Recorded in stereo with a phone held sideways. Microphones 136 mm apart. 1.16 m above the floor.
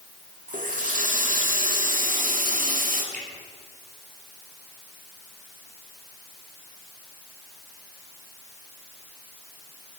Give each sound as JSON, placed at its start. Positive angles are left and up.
{"t": 0.5, "sound": "a running tap", "side_deg": -80, "distance_m": 1.7}
{"t": 3.1, "sound": "a finger snap", "side_deg": -85, "distance_m": 4.0}